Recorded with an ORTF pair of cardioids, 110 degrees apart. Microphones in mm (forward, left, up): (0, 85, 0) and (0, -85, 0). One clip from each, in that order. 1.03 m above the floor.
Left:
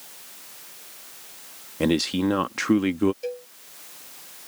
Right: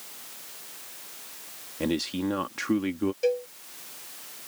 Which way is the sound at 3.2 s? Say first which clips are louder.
Right 7 dB; 35° right.